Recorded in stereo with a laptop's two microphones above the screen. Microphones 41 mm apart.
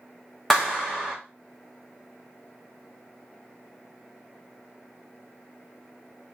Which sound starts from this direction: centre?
A clap, at 0.5 s.